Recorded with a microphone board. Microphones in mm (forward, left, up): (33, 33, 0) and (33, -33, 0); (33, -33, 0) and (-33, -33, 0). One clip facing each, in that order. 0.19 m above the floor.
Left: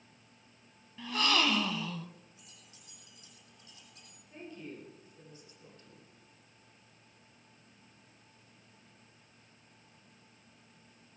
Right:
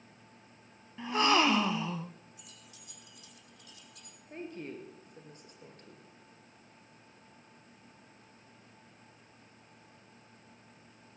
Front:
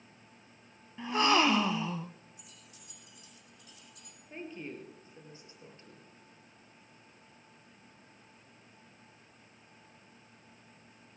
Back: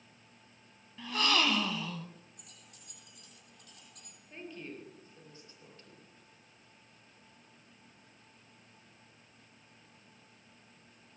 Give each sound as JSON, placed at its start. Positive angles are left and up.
{"t": 1.0, "sound": "a gasp", "azimuth_deg": -45, "distance_m": 0.5}
{"t": 2.4, "sound": "keys jangling", "azimuth_deg": 150, "distance_m": 5.5}
{"t": 4.3, "sound": "a woman speaking", "azimuth_deg": -65, "distance_m": 3.5}